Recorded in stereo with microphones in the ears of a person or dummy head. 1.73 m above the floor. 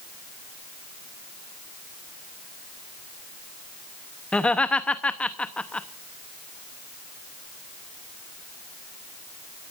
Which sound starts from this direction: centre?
Laughter, at 4.3 s.